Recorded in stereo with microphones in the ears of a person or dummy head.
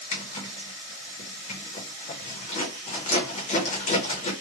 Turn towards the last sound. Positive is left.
turn(degrees=45)  # may be behind; listen again after turning